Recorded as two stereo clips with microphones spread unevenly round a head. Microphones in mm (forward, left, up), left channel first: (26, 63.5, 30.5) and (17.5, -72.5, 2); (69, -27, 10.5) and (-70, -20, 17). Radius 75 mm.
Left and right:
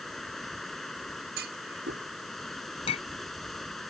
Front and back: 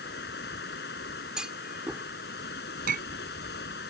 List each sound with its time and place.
0.0 s running water: straight ahead
1.4 s a clunk: 100° right
2.9 s a clink: 140° left